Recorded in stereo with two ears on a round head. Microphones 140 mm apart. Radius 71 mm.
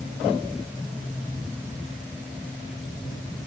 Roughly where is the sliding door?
I don't hear a sliding door.